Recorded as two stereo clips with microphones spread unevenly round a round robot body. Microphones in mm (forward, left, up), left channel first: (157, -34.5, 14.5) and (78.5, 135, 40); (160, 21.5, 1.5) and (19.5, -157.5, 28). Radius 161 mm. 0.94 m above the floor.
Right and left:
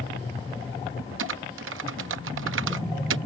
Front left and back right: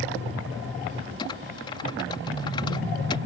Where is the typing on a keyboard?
125° left.